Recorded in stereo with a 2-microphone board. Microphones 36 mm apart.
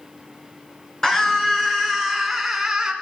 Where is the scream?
15° left (ahead or behind), 2.5 m; by 2.9 s 15° right (ahead or behind), 1.8 m.